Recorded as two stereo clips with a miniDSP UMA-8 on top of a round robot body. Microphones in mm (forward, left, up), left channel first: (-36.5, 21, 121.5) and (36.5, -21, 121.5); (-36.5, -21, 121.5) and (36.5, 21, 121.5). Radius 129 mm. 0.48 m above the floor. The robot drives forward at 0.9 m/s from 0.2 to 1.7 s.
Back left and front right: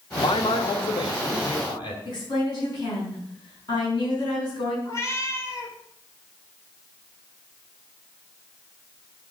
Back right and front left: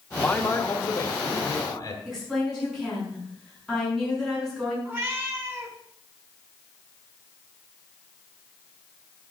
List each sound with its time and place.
0.2 s a man speaking: 135° left, 1.3 m; by 1.9 s 160° left, 2.5 m
2.0 s a woman speaking: 120° left, 6.5 m
4.8 s a cat meowing: 95° left, 1.9 m